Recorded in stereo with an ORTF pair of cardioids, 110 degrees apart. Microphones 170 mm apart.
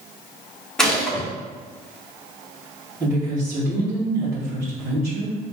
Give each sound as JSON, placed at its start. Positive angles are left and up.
{"t": 0.8, "sound": "a gunshot", "azimuth_deg": 5, "distance_m": 1.0}
{"t": 3.0, "sound": "a woman speaking", "azimuth_deg": -15, "distance_m": 1.7}